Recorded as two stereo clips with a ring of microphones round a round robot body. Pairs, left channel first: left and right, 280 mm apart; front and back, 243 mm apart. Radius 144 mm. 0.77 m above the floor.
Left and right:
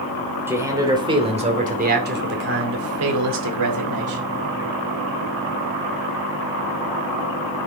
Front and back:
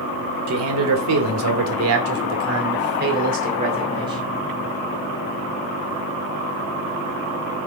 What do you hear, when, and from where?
0.5 s a man speaking: 170° right, 2.5 m; by 4.2 s 105° right, 2.5 m